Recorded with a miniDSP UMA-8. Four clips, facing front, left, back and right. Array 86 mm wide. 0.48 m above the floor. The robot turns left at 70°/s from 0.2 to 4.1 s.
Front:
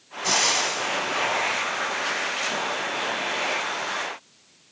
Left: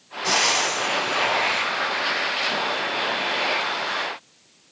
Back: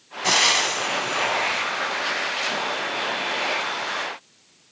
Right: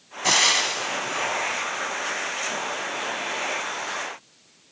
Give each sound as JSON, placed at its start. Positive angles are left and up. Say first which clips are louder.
{"t": 0.2, "sound": "frying", "louder": "left 1 dB, back 3 dB", "azimuth_deg": -125, "distance_m": 2.5}